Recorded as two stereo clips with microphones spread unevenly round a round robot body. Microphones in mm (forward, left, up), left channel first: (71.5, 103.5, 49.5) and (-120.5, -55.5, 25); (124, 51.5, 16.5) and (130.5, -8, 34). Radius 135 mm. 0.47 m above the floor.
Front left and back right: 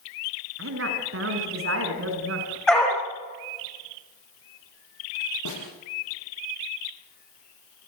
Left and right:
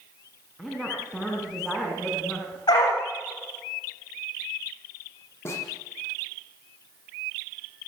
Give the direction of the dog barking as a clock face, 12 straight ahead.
8 o'clock.